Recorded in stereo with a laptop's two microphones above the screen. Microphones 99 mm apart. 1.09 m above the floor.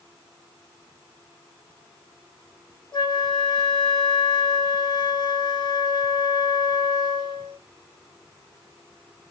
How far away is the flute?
About 1.7 m.